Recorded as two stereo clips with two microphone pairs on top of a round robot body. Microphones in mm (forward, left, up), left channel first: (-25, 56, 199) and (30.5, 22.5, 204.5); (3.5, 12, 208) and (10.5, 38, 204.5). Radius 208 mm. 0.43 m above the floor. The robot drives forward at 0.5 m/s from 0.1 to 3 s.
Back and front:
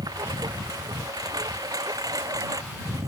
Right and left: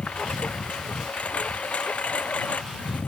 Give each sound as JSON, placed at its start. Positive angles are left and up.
{"t": 0.0, "sound": "a lawn mower", "azimuth_deg": -60}